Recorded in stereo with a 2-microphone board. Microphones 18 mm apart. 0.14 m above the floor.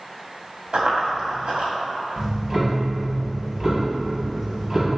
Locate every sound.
0.7 s running footsteps: 80° right, 1.1 m
2.2 s ticking: 25° right (ahead or behind), 0.8 m